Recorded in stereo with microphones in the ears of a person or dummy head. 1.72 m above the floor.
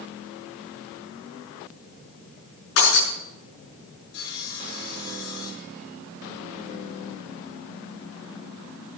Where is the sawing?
55° left (ahead or behind), 7 m.